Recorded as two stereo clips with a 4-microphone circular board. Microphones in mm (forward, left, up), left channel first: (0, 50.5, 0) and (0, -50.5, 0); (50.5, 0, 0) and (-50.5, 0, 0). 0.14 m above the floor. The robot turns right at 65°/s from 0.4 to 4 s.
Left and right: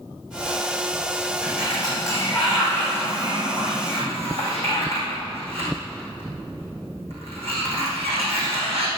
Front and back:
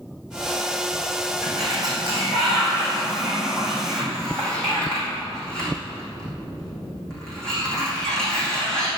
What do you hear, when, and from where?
1.4 s a sliding door: 110° left, 4 m; by 8.9 s 85° right, 4 m